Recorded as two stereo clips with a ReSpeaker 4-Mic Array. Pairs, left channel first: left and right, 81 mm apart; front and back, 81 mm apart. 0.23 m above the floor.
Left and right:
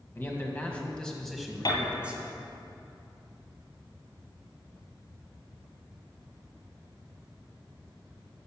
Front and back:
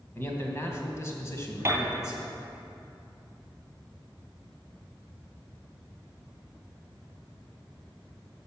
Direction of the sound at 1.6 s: 120° left.